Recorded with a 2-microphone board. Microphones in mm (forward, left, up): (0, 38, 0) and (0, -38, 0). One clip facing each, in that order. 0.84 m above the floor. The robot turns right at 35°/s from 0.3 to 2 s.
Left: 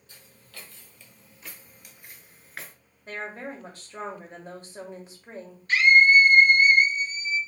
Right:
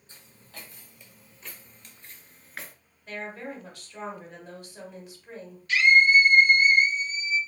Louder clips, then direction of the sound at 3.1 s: Left 1 dB; 35° left (ahead or behind).